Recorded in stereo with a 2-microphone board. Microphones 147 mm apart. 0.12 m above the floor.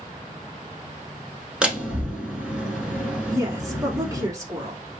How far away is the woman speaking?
About 1.1 m.